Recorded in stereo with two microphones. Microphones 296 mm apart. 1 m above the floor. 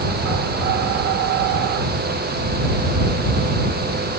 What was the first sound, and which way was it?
Only background noise.